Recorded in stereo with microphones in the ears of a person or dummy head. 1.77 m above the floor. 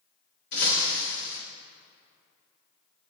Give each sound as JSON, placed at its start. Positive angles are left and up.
{"t": 0.5, "sound": "breaking glass", "side_deg": 55, "distance_m": 2.0}